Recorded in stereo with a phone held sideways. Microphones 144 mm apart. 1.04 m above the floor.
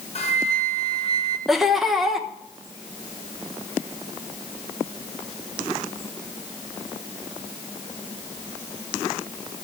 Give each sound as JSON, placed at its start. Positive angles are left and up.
{"t": 0.1, "sound": "a flute", "side_deg": 45, "distance_m": 1.0}
{"t": 1.5, "sound": "laughter", "side_deg": 0, "distance_m": 1.0}